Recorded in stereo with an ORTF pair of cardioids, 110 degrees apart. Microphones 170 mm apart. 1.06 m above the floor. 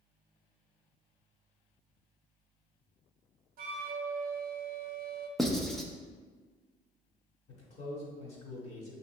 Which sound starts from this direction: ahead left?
A man speaking, at 7.5 s.